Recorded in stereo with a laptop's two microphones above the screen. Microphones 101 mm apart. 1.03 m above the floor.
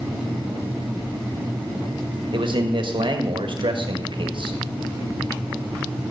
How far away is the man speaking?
About 1.4 m.